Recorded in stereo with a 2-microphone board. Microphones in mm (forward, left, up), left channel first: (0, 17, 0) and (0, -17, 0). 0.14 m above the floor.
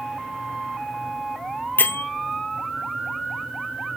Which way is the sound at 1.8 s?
70° left (ahead or behind).